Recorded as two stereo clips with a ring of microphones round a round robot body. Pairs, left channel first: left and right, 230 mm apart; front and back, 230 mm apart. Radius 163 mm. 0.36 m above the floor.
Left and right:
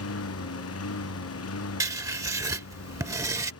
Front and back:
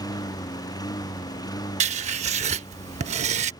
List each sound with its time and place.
0.0 s a lawn mower: 75° left
1.8 s writing: 155° right